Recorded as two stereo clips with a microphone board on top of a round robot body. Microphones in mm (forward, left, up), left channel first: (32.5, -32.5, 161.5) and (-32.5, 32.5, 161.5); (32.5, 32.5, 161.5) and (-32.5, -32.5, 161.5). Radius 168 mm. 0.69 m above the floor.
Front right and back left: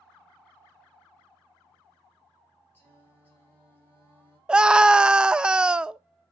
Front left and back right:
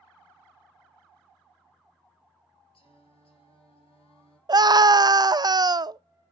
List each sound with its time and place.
2.7 s singing: 25° left, 2.5 m
4.5 s a scream: 150° right, 0.6 m